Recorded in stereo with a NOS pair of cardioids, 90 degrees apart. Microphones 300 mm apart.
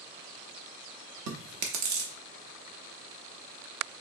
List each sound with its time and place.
1.3 s chewing: 60° right, 0.9 m